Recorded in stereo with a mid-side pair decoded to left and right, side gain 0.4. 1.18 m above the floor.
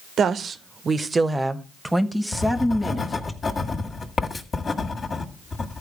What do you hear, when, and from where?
0.2 s a woman speaking: 65° right, 0.9 m; by 3.3 s 10° left, 1.7 m
2.3 s writing: 45° left, 1.6 m